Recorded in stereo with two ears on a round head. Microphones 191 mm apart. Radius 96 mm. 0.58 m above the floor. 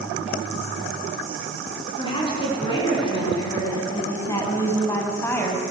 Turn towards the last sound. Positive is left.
turn(degrees=10)  # may be behind; listen again after turning